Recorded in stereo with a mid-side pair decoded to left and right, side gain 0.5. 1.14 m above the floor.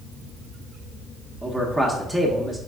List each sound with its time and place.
1.4 s a man speaking: 10° right, 0.8 m